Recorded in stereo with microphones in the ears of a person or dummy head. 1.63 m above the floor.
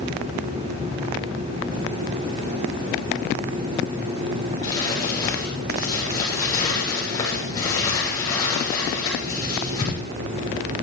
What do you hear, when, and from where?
4.6 s crumpling: 20° left (ahead or behind), 9.5 m